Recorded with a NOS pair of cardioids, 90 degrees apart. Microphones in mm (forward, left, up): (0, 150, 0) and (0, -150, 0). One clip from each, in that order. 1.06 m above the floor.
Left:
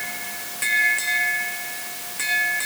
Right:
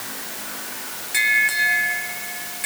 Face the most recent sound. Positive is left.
No sound to turn to.